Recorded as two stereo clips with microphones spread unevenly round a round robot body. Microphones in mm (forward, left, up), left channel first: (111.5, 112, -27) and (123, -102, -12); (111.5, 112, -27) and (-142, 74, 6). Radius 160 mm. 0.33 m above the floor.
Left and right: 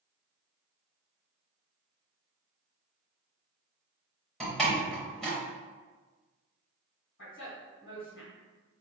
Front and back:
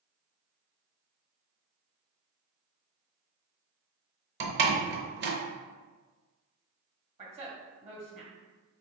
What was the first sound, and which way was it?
A door slam, 175° left.